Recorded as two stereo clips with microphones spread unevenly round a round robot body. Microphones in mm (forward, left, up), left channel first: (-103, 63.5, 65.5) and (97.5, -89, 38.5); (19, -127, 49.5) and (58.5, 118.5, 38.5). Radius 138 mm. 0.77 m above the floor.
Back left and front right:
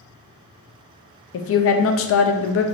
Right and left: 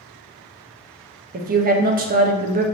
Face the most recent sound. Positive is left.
turn(degrees=125)